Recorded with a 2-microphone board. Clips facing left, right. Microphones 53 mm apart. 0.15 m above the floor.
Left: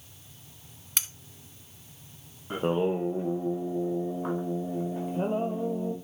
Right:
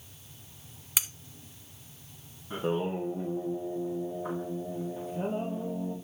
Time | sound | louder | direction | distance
1.0 | cutlery clinking | even | 5° right (ahead or behind) | 0.6 m
2.5 | singing | left 4 dB | 55° left (ahead or behind) | 2 m